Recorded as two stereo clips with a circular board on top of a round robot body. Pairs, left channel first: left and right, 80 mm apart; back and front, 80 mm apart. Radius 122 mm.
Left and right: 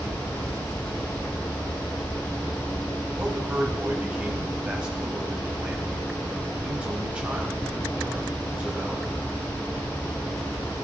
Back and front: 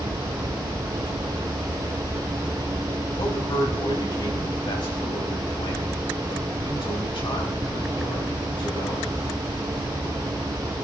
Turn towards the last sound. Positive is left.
turn(degrees=-165)